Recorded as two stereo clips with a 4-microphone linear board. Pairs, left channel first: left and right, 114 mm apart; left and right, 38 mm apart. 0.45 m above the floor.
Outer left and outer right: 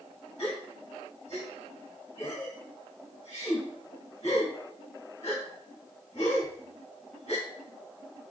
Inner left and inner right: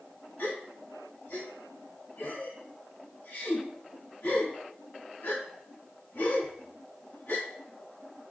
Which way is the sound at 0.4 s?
80° left.